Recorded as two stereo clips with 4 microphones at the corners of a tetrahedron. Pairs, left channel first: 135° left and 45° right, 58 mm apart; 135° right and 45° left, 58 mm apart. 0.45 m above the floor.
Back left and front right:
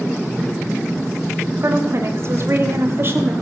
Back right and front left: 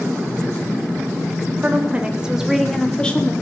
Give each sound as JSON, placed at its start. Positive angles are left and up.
{"t": 1.6, "sound": "a woman speaking", "azimuth_deg": -10, "distance_m": 2.5}